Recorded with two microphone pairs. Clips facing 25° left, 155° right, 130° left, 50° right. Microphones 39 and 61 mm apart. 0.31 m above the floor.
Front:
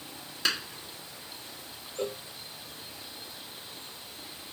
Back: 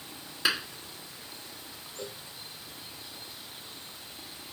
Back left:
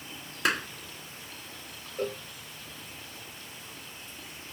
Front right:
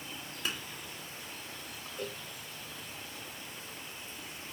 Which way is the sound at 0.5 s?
125° left.